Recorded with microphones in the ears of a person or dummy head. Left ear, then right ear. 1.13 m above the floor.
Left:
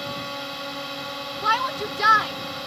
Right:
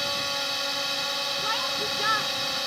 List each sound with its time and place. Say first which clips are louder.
0.0 s a drone: right 4 dB; 35° right (ahead or behind)
1.4 s a shout: left 4 dB; 30° left (ahead or behind)